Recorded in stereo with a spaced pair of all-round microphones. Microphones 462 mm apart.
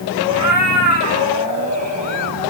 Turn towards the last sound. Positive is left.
turn(degrees=-35)  # may be behind; listen again after turning